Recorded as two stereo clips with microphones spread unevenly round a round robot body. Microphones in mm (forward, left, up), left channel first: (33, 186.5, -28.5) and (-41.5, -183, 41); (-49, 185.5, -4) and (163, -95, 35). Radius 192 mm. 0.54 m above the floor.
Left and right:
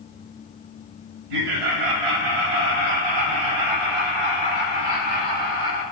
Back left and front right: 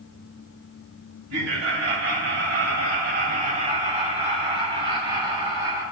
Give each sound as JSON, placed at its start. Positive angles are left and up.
{"t": 1.3, "sound": "laughter", "azimuth_deg": -110, "distance_m": 3.0}